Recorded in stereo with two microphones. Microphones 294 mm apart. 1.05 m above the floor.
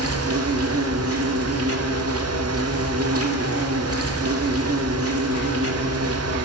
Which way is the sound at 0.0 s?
55° right (ahead or behind).